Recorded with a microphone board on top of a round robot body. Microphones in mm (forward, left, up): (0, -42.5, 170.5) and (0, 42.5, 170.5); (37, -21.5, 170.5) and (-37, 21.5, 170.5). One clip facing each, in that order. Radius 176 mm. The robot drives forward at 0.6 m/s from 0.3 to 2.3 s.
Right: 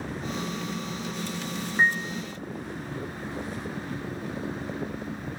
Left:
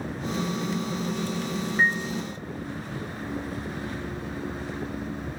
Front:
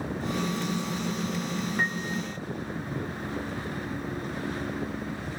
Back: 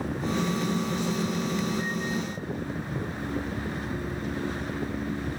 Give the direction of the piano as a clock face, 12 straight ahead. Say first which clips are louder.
Right 1 dB, even; 1 o'clock.